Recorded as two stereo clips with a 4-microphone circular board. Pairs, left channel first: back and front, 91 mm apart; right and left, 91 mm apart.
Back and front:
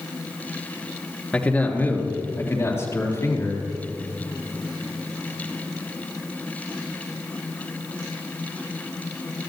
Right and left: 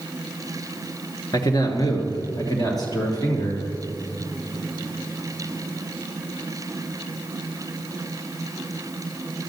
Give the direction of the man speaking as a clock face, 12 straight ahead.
4 o'clock.